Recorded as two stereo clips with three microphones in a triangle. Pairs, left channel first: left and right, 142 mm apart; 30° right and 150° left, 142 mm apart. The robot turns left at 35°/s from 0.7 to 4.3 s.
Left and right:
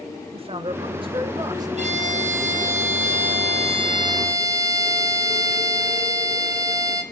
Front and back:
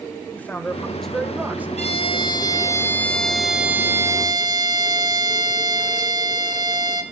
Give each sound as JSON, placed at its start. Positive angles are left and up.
{"t": 0.3, "sound": "a man speaking", "azimuth_deg": -105, "distance_m": 2.0}
{"t": 1.8, "sound": "a violin", "azimuth_deg": -65, "distance_m": 2.0}